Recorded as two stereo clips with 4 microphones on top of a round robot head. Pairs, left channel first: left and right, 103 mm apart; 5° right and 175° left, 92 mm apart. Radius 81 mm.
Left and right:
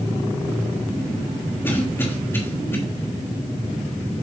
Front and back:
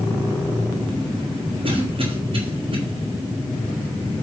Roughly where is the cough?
Behind left.